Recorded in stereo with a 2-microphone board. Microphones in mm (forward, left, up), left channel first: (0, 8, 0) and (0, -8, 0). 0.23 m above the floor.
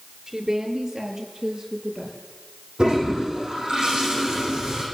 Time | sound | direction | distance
0.3 | a woman speaking | 50° right (ahead or behind) | 4.5 m
2.8 | a toilet flushing | 65° right (ahead or behind) | 9 m